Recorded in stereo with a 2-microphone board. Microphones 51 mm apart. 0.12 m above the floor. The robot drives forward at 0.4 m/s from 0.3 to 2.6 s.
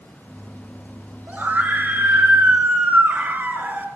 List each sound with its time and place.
1.3 s a scream: 35° right (ahead or behind), 2.0 m; by 3.9 s 40° right (ahead or behind), 1.8 m